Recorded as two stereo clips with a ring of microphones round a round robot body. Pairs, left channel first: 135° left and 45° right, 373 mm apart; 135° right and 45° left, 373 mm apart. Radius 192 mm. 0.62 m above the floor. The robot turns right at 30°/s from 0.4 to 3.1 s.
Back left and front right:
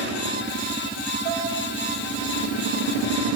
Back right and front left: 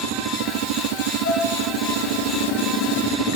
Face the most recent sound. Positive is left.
turn(degrees=-25)